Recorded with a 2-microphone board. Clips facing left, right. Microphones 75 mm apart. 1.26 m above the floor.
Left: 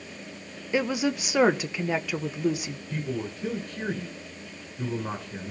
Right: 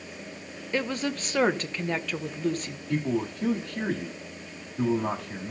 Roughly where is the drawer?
I don't hear a drawer.